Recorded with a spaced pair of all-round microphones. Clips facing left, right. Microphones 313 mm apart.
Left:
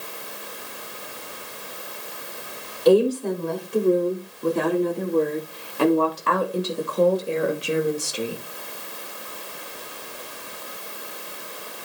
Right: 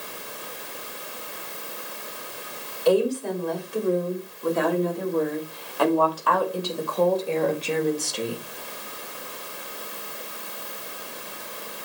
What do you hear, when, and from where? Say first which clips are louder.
2.9 s a woman speaking: left 4 dB; 45° left (ahead or behind), 4 m; by 8.4 s 5° left (ahead or behind), 1.8 m